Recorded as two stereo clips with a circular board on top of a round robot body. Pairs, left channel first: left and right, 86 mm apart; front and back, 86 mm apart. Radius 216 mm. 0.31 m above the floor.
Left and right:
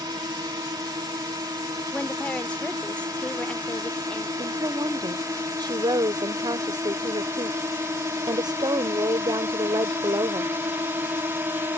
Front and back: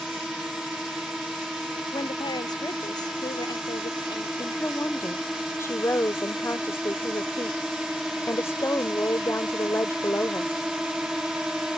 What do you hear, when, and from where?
0.0 s a drone: 95° right; by 11.8 s 105° right
1.9 s a woman speaking: 15° left
4.4 s a woman speaking: 60° right